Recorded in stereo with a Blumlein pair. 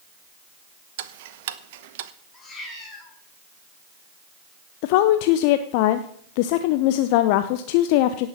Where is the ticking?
50° right, 0.8 m.